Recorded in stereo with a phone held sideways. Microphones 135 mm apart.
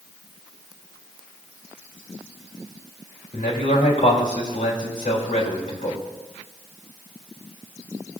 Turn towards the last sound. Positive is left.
turn(degrees=85)